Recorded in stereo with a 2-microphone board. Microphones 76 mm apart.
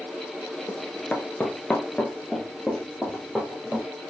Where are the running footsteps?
20° left (ahead or behind), 0.7 m; by 3.9 s centre (ahead or behind), 1.5 m.